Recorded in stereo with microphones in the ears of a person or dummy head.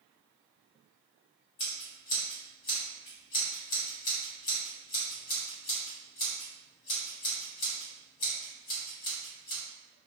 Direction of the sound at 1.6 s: 45° left (ahead or behind).